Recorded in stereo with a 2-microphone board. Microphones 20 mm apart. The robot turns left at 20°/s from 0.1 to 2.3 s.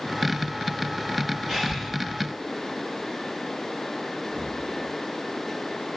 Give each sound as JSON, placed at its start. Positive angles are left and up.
{"t": 1.5, "sound": "breathing", "side_deg": -20, "distance_m": 4.5}
{"t": 4.2, "sound": "breathing", "side_deg": 35, "distance_m": 6.5}